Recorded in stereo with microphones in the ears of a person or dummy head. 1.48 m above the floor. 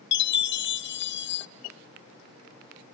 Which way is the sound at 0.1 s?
60° left (ahead or behind).